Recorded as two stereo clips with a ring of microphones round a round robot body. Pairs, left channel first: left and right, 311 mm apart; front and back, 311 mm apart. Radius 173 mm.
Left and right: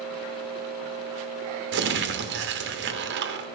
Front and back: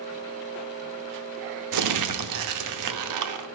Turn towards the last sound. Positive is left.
turn(degrees=-145)